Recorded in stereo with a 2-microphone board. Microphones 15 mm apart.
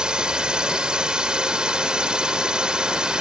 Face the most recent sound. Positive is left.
turn(degrees=-75)  # may be behind; listen again after turning